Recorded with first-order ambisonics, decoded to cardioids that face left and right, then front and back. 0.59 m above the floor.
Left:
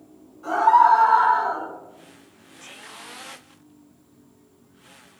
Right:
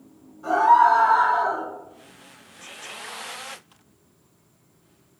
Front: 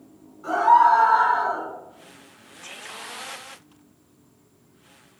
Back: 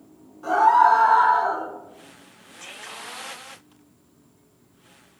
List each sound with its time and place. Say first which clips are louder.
0.4 s a scream: even, even; 175° left, 1.4 m; by 1.6 s 135° right, 1.0 m